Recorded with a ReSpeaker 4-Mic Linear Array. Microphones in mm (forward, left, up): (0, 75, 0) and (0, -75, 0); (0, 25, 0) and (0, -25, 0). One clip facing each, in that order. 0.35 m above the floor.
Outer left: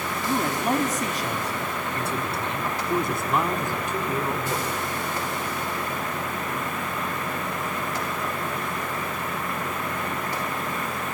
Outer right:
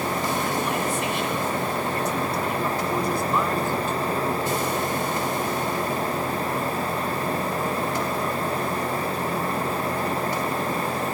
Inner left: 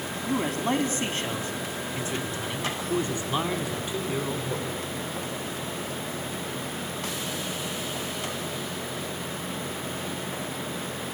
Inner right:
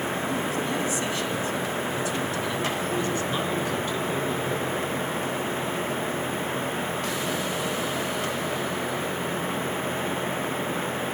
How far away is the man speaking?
About 3.5 m.